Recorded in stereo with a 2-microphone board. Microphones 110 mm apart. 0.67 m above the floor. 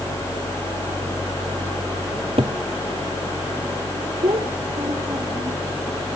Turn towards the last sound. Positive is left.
turn(degrees=-50)  # may be behind; listen again after turning